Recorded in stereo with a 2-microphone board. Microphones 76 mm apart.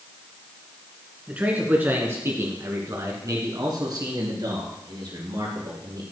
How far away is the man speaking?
About 2.5 m.